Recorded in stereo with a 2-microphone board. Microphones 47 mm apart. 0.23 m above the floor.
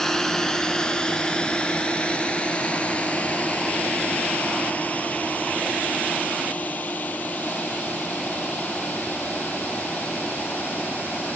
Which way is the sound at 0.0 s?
10° left (ahead or behind).